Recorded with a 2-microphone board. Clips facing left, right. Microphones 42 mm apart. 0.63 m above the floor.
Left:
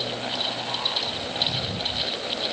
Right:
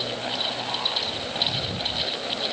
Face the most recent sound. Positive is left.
No sound to turn to.